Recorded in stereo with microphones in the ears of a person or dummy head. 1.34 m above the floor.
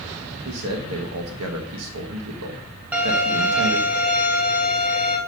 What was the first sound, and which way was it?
A man speaking, 80° right.